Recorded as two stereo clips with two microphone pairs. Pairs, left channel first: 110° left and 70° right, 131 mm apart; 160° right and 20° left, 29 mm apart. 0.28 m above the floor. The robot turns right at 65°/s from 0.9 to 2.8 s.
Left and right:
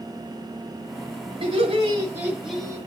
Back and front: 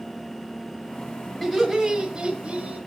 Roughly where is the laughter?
Ahead right.